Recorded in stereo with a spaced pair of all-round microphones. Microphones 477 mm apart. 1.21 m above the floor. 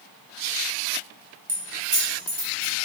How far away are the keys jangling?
About 0.8 m.